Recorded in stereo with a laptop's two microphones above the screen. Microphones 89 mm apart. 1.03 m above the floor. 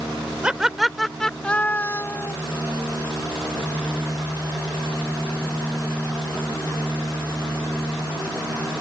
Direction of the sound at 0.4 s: 10° right (ahead or behind).